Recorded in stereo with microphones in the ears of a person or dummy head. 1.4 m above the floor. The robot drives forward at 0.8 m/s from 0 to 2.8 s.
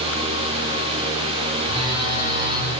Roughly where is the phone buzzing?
Right.